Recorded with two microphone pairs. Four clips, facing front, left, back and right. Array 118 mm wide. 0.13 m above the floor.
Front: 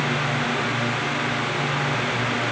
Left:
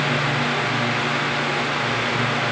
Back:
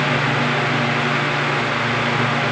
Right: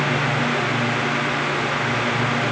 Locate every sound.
Only background noise.